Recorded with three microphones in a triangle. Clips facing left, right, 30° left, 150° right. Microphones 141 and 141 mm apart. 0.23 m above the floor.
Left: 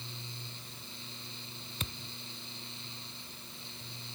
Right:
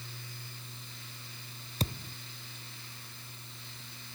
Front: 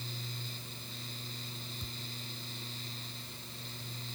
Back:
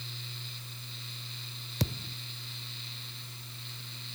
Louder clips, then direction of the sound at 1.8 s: Right 9 dB, back 11 dB; 145° right.